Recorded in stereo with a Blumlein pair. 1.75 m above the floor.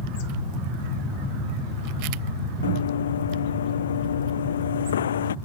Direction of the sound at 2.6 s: 65° left.